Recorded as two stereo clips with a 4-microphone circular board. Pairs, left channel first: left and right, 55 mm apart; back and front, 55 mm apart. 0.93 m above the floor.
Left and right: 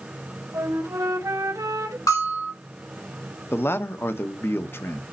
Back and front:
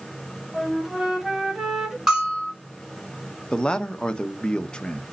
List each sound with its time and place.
0.5 s a flute: 80° right, 1.4 m
2.1 s a bell: 80° left, 4.5 m
3.5 s a man speaking: 115° left, 0.8 m